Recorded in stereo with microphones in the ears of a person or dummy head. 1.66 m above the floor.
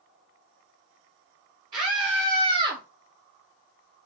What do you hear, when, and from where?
1.7 s a scream: 25° right (ahead or behind), 1.4 m; by 2.8 s 30° right (ahead or behind), 0.6 m